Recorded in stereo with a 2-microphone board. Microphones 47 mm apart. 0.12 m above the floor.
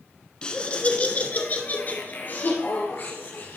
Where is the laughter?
20° left (ahead or behind), 1.3 m; by 3.6 s 45° left (ahead or behind), 3 m.